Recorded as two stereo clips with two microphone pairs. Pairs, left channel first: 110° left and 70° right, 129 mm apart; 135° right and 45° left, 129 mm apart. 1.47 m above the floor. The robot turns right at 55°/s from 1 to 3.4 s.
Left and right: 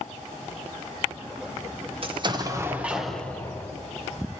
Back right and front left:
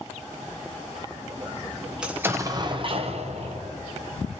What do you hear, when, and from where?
2.0 s an explosion: 40° right, 0.7 m; by 3.7 s 40° left, 0.7 m